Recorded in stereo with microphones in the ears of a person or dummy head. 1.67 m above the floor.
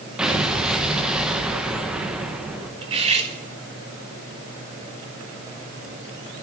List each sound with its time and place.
0.2 s an explosion: 10° right (ahead or behind), 1.2 m
2.8 s cutlery clinking: 35° right (ahead or behind), 1.3 m